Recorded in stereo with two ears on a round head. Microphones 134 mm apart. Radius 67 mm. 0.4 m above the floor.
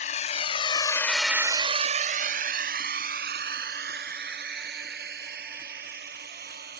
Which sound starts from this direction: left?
A drone, at 0.0 s.